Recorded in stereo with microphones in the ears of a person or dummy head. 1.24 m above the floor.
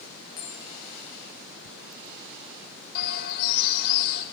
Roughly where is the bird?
Left.